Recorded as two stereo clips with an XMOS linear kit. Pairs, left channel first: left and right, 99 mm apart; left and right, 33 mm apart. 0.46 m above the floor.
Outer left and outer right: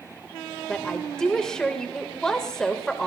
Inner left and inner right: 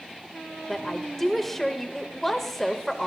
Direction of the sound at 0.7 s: 5° left (ahead or behind).